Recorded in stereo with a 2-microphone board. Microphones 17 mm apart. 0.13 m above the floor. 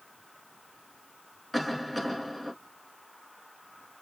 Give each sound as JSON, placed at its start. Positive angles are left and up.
{"t": 1.5, "sound": "a cough", "side_deg": -10, "distance_m": 1.6}